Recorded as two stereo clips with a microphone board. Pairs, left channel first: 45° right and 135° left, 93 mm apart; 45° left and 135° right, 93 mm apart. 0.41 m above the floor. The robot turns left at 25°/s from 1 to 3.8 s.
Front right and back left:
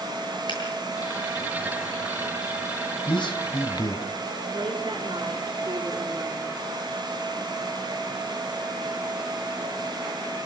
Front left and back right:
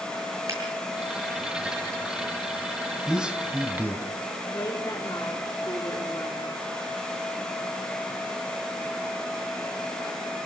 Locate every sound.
0.5 s a finger snap: 80° right, 8 m
3.1 s a man speaking: 50° right, 1.9 m; by 4.1 s 70° right, 1.9 m
4.5 s a woman speaking: 100° left, 3.5 m